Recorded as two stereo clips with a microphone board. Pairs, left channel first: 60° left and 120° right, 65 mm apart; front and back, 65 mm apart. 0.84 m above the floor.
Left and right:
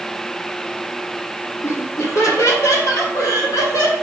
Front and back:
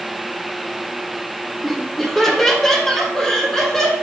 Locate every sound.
1.6 s laughter: 90° left, 2.5 m; by 3.9 s 85° left, 4 m